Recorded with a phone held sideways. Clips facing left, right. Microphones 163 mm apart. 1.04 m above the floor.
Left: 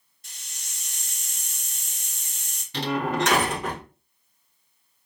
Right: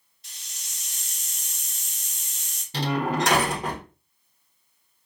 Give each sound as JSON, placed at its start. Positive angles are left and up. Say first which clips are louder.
{"t": 0.2, "sound": "a hiss", "louder": "left 1 dB", "side_deg": 50, "distance_m": 0.8}
{"t": 2.7, "sound": "a door slam", "louder": "even", "side_deg": -35, "distance_m": 1.1}